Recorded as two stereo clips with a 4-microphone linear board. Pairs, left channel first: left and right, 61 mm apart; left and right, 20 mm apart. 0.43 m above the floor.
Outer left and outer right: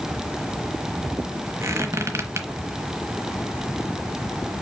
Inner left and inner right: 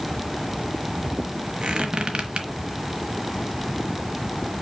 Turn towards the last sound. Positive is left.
turn(degrees=-50)  # may be behind; listen again after turning